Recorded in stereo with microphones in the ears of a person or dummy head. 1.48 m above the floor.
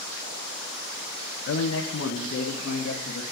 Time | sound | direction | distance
1.5 | a man speaking | 85° left | 0.8 m